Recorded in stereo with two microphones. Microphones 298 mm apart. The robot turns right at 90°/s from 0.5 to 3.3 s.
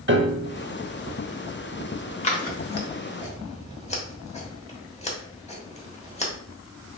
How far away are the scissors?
About 1.1 m.